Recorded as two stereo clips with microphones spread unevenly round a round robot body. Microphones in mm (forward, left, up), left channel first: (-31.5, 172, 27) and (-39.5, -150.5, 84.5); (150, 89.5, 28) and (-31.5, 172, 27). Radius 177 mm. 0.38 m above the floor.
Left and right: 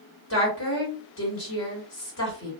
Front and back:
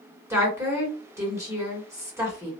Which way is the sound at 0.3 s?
85° left.